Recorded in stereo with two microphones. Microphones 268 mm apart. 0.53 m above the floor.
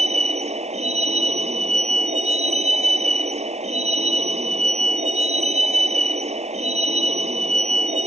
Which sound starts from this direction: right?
A vehicle, at 0.0 s.